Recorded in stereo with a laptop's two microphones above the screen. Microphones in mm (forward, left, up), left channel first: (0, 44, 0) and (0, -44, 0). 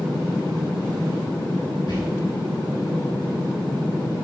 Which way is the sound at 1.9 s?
60° left (ahead or behind).